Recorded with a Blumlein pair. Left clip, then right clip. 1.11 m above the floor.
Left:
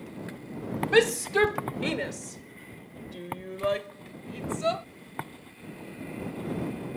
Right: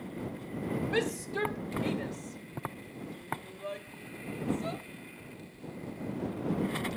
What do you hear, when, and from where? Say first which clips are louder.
0.9 s a shout: left 12 dB; 30° left